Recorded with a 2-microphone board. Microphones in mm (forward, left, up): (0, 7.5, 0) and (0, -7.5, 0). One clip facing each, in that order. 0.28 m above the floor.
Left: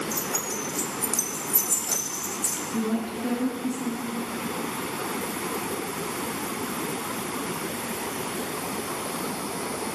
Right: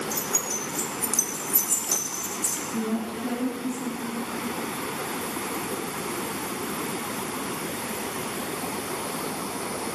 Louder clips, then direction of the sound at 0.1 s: Right 1 dB; 30° right (ahead or behind).